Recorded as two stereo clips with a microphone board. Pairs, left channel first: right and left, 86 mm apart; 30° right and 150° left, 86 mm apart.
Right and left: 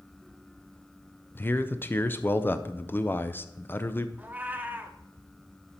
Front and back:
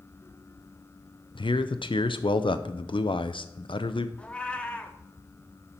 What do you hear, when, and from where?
1.4 s a man speaking: 25° right, 0.7 m
4.2 s a cat meowing: 35° left, 0.9 m